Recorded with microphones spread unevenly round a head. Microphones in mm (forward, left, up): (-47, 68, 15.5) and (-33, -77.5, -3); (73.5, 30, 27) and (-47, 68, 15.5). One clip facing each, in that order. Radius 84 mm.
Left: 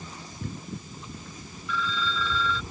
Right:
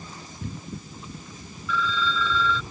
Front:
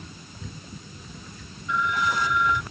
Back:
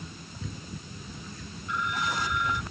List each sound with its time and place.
1.7 s a phone ringing: 60° right